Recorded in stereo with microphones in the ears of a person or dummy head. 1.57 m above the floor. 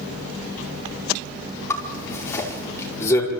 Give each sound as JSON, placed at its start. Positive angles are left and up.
{"t": 1.7, "sound": "a zipper", "side_deg": 15, "distance_m": 5.0}